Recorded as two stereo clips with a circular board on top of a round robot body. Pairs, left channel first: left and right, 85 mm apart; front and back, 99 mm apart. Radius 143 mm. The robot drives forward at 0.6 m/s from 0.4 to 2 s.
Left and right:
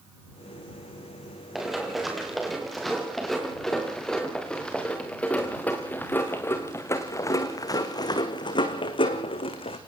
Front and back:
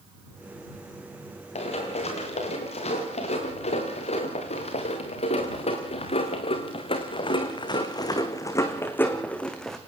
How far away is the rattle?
I don't hear a rattle.